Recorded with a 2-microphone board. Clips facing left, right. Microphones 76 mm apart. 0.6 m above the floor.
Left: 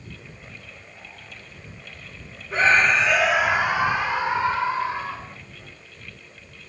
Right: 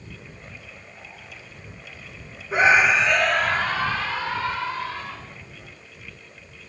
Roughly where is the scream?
Centre.